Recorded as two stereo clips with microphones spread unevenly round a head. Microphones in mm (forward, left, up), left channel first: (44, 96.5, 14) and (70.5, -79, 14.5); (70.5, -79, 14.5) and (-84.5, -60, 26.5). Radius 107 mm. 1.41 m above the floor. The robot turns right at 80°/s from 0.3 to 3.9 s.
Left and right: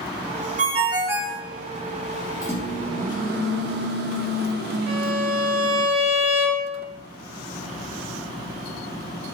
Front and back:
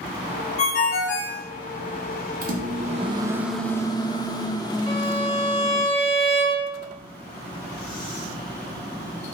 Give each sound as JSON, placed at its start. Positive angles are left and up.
{"t": 0.6, "sound": "a ringtone", "azimuth_deg": -45, "distance_m": 0.6}
{"t": 2.4, "sound": "a microwave", "azimuth_deg": 170, "distance_m": 0.7}
{"t": 4.9, "sound": "a violin", "azimuth_deg": -60, "distance_m": 1.7}